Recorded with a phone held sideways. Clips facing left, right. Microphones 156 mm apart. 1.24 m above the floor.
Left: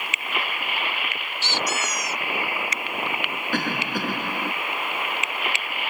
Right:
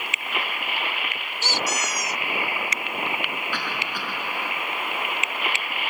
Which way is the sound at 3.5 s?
50° left (ahead or behind).